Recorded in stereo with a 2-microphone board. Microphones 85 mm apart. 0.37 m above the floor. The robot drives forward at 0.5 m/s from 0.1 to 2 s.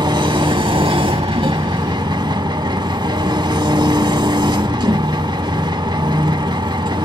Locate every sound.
0.0 s an engine running: 55° right (ahead or behind), 0.9 m